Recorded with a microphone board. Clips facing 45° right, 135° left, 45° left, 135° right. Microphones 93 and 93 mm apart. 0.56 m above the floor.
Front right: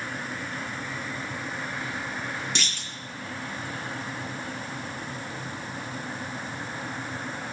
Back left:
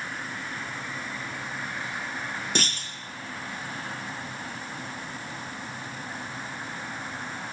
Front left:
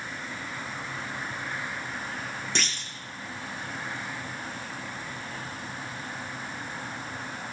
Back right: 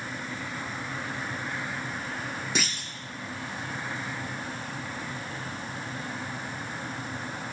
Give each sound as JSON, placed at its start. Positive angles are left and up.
{"t": 2.5, "sound": "a clunk", "azimuth_deg": 145, "distance_m": 1.1}